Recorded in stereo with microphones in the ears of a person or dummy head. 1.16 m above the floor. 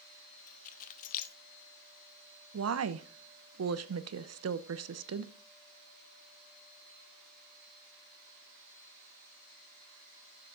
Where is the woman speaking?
75° right (ahead or behind), 0.7 m.